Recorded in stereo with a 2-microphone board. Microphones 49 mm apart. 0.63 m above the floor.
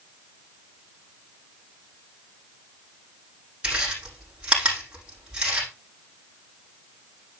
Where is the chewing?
20° right (ahead or behind), 6.5 m.